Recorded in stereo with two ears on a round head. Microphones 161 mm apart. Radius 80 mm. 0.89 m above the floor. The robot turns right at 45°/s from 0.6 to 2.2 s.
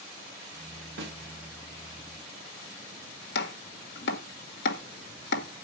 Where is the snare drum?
65° right (ahead or behind), 2.5 m; by 1.2 s 55° right (ahead or behind), 2.5 m.